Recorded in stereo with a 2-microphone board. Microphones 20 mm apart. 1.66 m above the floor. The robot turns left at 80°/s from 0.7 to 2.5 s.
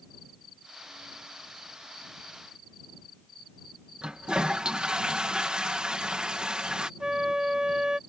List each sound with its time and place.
4.0 s a toilet flushing: 55° right (ahead or behind)
7.0 s a flute: 45° right (ahead or behind)